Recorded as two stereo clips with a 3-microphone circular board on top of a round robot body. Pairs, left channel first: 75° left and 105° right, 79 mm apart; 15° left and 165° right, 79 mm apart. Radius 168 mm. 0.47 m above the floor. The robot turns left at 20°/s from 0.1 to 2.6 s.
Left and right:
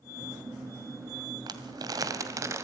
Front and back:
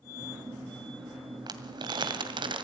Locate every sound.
1.5 s crumpling: 135° right, 2 m; by 2.6 s 160° right, 2 m